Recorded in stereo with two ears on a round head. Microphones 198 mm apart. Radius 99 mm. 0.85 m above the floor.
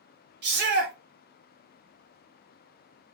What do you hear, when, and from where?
0.4 s a shout: 50° right (ahead or behind), 1.3 m